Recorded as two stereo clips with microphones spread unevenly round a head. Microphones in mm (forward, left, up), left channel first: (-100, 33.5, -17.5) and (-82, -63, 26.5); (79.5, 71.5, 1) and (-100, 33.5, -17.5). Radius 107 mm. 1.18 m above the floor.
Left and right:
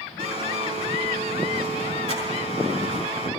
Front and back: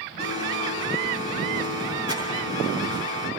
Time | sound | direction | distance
0.2 | a blender | 50° right | 4 m